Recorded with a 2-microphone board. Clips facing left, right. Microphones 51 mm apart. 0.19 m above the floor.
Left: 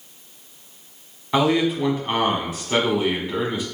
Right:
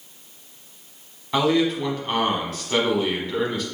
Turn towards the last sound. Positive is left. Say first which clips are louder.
# left 1 dB
turn(degrees=10)  # may be behind; listen again after turning